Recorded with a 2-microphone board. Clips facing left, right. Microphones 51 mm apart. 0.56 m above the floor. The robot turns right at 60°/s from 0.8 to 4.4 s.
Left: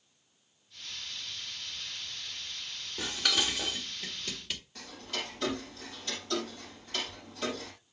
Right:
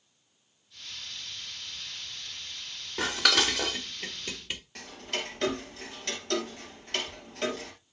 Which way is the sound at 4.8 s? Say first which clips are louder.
Right 5 dB; 70° right (ahead or behind).